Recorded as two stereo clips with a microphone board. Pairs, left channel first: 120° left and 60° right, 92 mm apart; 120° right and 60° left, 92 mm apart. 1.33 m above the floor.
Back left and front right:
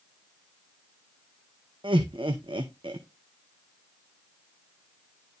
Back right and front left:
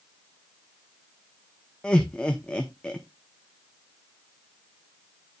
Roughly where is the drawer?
I don't hear a drawer.